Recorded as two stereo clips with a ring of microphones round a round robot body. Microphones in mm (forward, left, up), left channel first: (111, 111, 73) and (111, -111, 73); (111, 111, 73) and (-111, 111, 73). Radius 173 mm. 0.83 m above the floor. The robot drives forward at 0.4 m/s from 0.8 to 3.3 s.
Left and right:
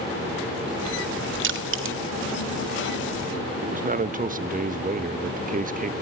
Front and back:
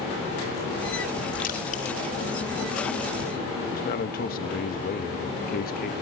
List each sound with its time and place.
1.4 s crushing: 60° right, 2.0 m; by 2.0 s 65° right, 1.9 m
3.6 s a man speaking: 45° right, 1.1 m